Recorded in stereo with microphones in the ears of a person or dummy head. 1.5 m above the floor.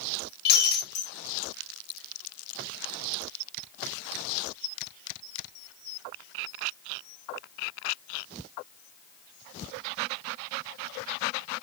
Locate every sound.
0.5 s breaking glass: 60° left (ahead or behind), 4 m